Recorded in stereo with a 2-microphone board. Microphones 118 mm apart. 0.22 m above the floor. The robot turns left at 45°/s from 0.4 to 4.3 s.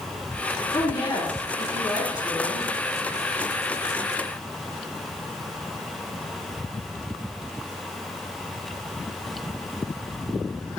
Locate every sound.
0.7 s a woman speaking: 55° left, 3 m; by 2.7 s 30° right, 3 m